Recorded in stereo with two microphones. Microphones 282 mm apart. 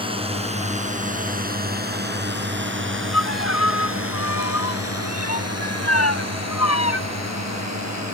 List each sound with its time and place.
0.0 s a drone: 20° right (ahead or behind); by 8.1 s 70° right (ahead or behind)
3.1 s a violin: 65° left (ahead or behind)